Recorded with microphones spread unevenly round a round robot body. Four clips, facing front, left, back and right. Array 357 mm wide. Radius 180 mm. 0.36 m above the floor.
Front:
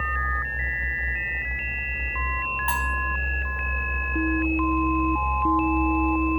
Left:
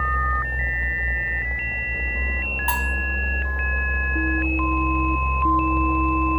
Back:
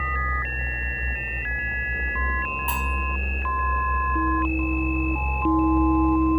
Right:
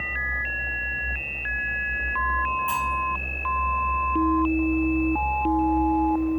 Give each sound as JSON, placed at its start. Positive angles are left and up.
{"t": 2.7, "sound": "cutlery clinking", "azimuth_deg": 100, "distance_m": 0.9}